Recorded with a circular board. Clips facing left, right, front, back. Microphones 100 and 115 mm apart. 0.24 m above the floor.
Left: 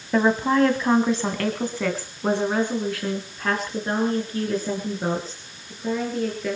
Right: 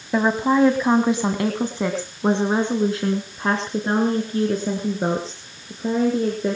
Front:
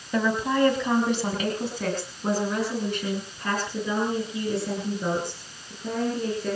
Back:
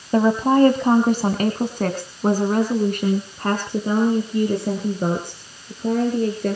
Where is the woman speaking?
170° right, 1.6 m; by 6.6 s 145° right, 4.5 m.